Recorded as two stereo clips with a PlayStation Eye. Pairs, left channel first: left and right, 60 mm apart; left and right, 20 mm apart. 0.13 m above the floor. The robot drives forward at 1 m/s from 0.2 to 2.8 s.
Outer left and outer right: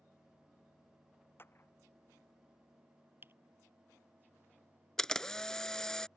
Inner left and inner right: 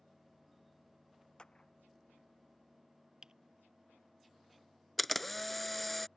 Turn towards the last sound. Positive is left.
turn(degrees=10)  # may be behind; listen again after turning